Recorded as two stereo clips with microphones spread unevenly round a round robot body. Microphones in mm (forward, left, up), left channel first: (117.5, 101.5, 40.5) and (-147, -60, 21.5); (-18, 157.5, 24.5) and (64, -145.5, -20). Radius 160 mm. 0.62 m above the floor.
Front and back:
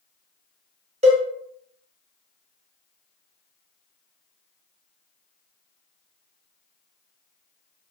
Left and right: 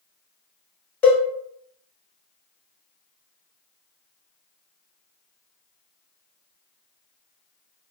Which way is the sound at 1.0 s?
160° right.